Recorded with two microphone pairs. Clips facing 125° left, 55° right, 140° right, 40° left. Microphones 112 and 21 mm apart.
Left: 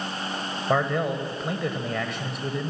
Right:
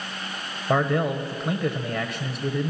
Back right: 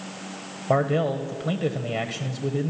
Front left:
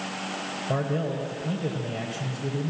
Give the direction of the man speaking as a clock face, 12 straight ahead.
5 o'clock.